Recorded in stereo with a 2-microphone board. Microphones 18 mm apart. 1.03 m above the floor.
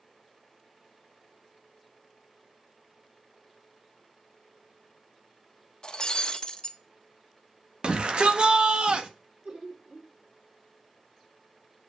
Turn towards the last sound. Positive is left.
turn(degrees=-65)  # may be behind; listen again after turning